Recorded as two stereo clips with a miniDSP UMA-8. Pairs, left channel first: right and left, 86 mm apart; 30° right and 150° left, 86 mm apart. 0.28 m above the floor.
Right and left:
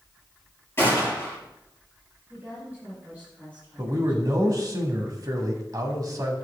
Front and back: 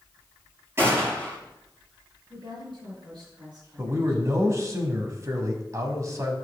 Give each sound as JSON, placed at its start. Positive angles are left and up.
{"t": 0.8, "sound": "a gunshot", "azimuth_deg": -150, "distance_m": 5.5}
{"t": 2.3, "sound": "a woman speaking", "azimuth_deg": 160, "distance_m": 6.0}
{"t": 3.8, "sound": "a man speaking", "azimuth_deg": 115, "distance_m": 1.7}